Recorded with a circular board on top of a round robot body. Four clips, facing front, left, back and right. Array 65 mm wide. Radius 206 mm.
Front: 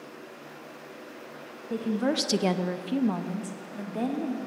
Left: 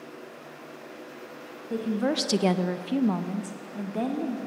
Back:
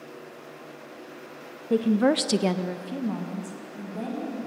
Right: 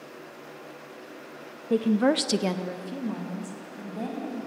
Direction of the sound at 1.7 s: 130° right.